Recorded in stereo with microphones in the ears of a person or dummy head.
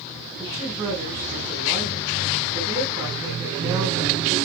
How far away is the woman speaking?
About 5 m.